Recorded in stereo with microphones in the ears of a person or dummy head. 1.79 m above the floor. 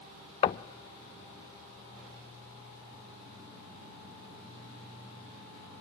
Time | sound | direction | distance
0.4 | knocking | 30° left (ahead or behind) | 0.5 m